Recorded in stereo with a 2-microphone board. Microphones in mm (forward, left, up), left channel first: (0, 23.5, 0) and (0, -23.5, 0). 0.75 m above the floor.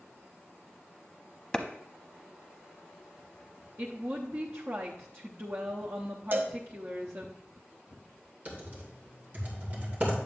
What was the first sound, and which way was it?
A clap, 15° left (ahead or behind).